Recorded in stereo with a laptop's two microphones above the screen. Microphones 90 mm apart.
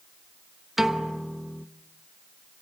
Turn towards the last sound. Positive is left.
turn(degrees=-5)  # may be behind; listen again after turning